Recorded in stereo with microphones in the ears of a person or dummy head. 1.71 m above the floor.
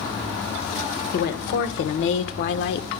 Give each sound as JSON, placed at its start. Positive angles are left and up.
{"t": 1.1, "sound": "a woman speaking", "side_deg": 60, "distance_m": 1.5}